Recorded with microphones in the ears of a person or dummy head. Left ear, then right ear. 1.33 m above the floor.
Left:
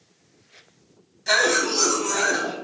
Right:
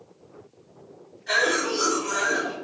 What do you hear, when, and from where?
1.3 s a cough: 65° left (ahead or behind), 1.2 m